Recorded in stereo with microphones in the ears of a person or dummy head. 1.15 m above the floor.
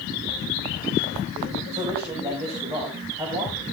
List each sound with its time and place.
1.7 s a man speaking: 15° right (ahead or behind), 6.5 m; by 3.6 s 25° right (ahead or behind), 7 m